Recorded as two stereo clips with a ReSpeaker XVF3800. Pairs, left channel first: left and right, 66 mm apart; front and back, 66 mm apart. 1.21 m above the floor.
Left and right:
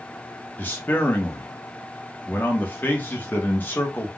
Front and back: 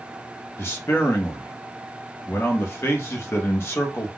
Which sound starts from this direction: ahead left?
A man speaking, at 0.6 s.